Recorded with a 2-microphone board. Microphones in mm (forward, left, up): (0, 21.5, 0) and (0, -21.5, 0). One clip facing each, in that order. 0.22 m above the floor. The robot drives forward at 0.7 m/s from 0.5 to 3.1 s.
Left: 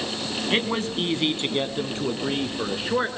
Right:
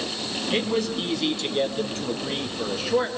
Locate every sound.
0.5 s a man speaking: 40° left (ahead or behind), 1.8 m; by 3.1 s 25° left (ahead or behind), 3 m